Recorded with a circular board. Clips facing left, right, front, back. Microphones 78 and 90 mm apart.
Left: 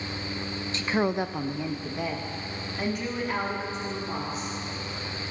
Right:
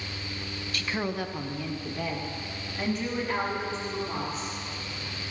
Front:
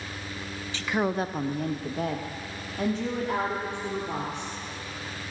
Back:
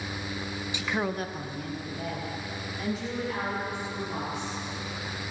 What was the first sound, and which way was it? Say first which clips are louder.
A woman speaking: left 5 dB, front 4 dB; 125° left.